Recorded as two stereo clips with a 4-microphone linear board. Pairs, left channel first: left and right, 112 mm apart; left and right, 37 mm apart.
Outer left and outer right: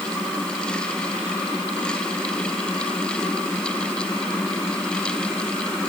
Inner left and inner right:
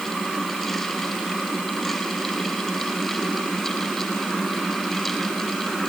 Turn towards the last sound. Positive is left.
No sound to turn to.